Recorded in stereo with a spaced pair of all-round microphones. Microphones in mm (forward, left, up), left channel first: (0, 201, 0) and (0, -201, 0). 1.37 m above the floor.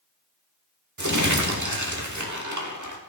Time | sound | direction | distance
1.0 | crumpling | 45° right (ahead or behind) | 1.5 m